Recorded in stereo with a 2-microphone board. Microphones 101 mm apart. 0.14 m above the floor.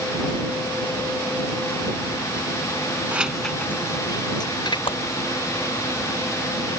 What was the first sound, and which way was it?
Keys jangling, 15° right (ahead or behind).